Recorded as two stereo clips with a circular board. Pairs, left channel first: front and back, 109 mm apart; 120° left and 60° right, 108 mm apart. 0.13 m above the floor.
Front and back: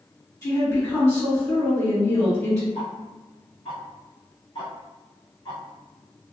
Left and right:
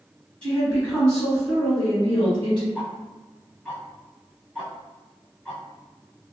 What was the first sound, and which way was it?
A woman speaking, 50° left.